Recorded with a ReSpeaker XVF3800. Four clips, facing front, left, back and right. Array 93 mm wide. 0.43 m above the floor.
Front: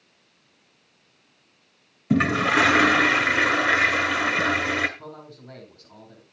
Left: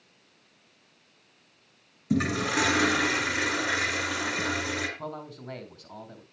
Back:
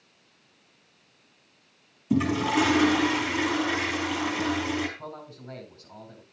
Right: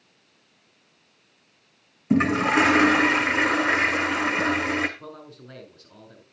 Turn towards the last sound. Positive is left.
turn(degrees=100)